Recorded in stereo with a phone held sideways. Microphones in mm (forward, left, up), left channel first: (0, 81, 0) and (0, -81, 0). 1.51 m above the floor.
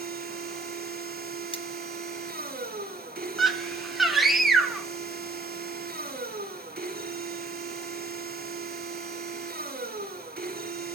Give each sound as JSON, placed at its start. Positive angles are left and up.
{"t": 0.0, "sound": "a machine running", "side_deg": -65, "distance_m": 2.0}
{"t": 1.5, "sound": "cutlery clinking", "side_deg": 35, "distance_m": 1.1}
{"t": 3.4, "sound": "a scream", "side_deg": 0, "distance_m": 1.5}